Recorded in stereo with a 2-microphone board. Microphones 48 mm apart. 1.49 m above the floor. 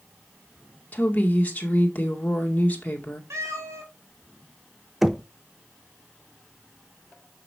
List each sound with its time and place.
0.9 s a woman speaking: 35° left (ahead or behind), 2 m
3.3 s a cat meowing: 80° right, 4 m
5.0 s knocking: 5° right (ahead or behind), 0.5 m